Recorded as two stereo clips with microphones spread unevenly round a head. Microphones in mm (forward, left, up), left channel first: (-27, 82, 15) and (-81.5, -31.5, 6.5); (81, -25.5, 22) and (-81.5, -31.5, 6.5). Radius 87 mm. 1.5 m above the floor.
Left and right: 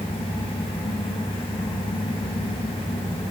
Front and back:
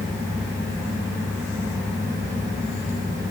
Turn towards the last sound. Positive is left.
turn(degrees=110)